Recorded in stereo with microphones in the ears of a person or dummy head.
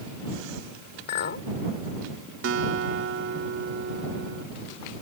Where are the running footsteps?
No running footsteps in this recording.